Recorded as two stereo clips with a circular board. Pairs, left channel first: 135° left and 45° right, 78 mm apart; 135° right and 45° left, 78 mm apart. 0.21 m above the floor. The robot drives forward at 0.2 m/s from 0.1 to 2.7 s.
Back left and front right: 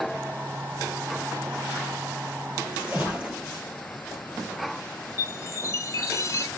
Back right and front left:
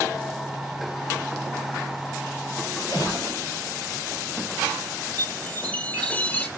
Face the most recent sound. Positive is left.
turn(degrees=160)